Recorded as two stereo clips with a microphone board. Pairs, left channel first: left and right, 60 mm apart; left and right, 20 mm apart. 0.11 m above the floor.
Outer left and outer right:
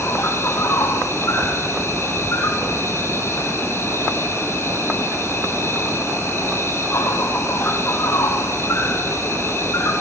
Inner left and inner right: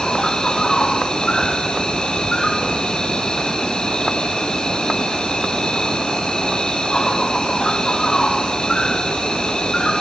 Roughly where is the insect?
Left.